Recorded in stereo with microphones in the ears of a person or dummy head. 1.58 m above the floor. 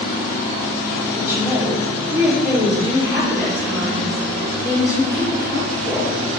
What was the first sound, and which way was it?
A woman speaking, 20° left (ahead or behind).